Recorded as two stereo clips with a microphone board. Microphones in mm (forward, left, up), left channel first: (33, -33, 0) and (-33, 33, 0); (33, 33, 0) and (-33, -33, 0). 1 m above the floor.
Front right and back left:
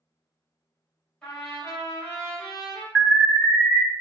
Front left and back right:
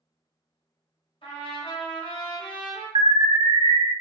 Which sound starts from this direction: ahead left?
A trumpet, at 1.2 s.